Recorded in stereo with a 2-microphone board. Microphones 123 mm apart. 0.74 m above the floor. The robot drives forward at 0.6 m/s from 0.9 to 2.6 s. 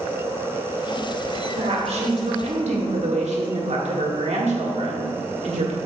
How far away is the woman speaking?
About 1.9 m.